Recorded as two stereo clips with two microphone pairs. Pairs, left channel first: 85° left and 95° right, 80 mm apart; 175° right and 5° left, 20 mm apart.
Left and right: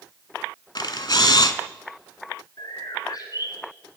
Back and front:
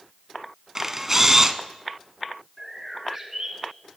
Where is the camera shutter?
75° left, 0.6 m.